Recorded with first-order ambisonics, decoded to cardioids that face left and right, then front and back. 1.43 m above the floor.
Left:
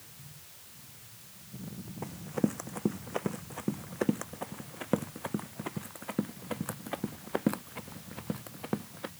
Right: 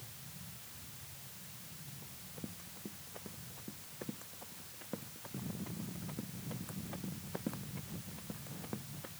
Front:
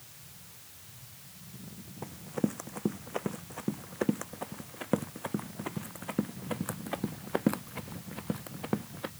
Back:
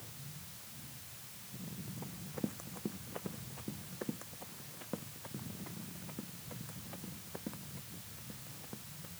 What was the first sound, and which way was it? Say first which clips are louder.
Running footsteps: left 20 dB, front 9 dB; 60° left.